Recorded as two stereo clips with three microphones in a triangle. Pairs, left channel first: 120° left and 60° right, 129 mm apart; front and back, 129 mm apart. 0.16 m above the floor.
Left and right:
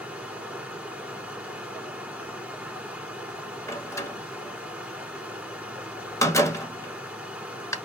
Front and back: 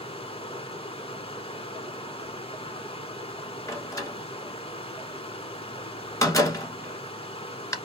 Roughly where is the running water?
Ahead.